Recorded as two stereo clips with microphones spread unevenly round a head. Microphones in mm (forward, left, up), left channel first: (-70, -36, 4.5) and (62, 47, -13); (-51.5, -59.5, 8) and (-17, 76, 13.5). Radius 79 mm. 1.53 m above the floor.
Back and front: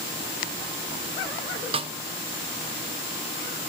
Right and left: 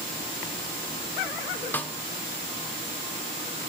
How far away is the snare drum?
About 1.1 m.